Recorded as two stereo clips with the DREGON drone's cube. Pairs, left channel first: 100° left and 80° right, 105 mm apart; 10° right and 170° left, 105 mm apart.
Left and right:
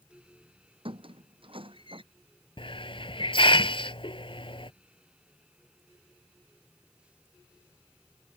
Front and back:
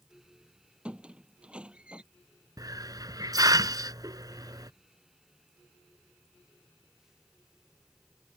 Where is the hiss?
120° left.